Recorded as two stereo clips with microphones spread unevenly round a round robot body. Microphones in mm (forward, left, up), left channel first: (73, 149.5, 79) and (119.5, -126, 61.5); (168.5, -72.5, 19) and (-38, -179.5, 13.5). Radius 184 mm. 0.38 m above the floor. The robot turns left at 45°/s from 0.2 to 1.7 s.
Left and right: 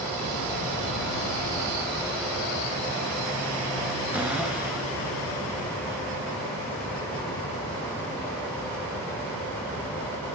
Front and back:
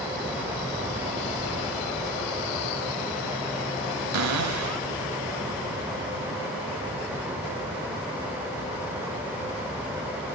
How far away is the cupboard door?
About 0.8 m.